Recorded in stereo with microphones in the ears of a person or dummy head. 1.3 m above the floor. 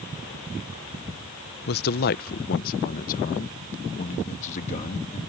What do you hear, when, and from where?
1.7 s a man speaking: 55° left (ahead or behind); by 5.2 s 40° left (ahead or behind)